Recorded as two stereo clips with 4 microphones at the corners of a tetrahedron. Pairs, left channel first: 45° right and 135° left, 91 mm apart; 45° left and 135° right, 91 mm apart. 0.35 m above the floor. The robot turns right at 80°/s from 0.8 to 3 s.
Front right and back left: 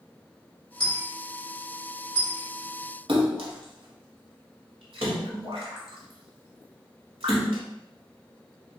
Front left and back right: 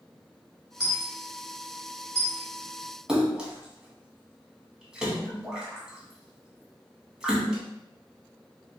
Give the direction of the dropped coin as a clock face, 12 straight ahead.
2 o'clock.